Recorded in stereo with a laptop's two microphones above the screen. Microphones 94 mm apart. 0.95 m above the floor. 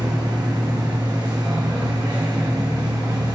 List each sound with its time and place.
0.0 s a machine running: 40° right (ahead or behind), 1.5 m